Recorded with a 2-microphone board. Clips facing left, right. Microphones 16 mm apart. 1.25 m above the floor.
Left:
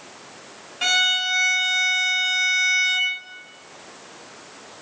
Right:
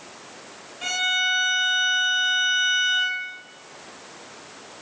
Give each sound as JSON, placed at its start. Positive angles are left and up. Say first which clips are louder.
{"t": 0.8, "sound": "a violin", "louder": "left 3 dB", "side_deg": 55, "distance_m": 1.7}